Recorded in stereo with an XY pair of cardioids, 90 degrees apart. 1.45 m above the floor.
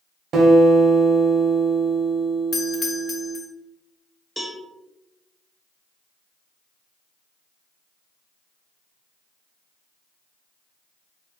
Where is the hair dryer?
I don't hear a hair dryer.